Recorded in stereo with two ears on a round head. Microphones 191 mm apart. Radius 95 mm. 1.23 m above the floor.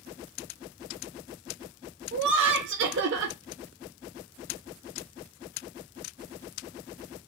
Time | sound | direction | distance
2.1 | laughter | 55° right (ahead or behind) | 0.9 m